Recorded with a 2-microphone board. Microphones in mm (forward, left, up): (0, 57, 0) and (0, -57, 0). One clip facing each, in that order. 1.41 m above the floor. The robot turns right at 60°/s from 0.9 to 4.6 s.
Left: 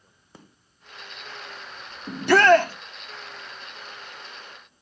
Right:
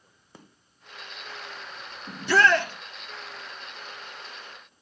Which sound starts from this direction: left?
A shout, at 2.1 s.